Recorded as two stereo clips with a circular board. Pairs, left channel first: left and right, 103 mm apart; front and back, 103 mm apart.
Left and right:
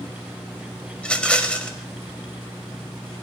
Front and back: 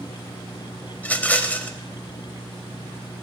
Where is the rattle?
35° left, 0.9 m.